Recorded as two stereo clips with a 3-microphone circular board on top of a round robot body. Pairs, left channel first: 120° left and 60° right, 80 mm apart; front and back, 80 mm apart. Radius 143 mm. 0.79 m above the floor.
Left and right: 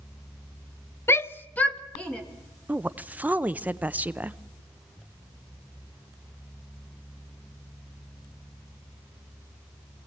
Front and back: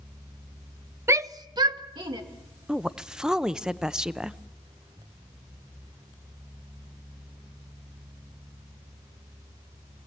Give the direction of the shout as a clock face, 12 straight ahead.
7 o'clock.